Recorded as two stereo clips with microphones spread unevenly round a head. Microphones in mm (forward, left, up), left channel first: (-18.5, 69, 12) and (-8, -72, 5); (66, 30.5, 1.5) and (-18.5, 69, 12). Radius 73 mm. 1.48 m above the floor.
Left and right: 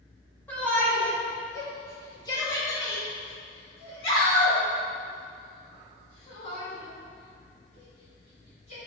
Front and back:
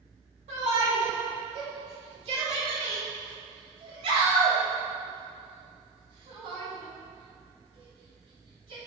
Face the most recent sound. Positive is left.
turn(degrees=130)